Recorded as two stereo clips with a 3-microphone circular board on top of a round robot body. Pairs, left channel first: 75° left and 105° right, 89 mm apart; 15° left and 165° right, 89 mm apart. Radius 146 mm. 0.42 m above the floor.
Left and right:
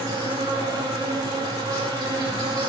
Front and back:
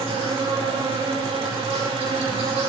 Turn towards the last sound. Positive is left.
turn(degrees=-155)